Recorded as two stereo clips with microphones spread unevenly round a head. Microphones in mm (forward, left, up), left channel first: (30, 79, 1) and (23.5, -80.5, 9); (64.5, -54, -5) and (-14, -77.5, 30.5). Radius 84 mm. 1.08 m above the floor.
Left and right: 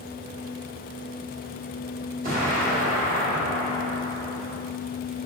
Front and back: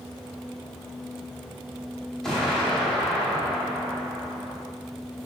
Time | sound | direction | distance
2.2 | an explosion | 90° right | 0.9 m